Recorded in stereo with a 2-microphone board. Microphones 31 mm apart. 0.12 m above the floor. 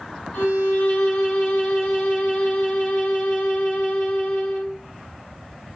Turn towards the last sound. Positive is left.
turn(degrees=35)  # may be behind; listen again after turning